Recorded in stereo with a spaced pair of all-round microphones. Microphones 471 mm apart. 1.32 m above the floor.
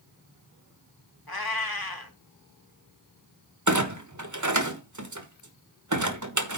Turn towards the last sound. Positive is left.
turn(degrees=-40)  # may be behind; listen again after turning